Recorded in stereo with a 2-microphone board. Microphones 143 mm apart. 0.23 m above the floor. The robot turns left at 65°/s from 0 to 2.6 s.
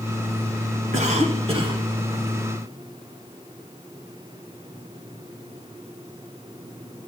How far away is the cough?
About 1.5 m.